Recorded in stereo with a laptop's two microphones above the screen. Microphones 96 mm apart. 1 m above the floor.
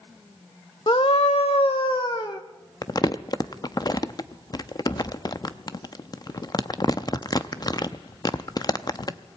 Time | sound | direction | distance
0.9 | a scream | 50° left (ahead or behind) | 0.9 m
2.8 | crumpling | 45° left (ahead or behind) | 0.6 m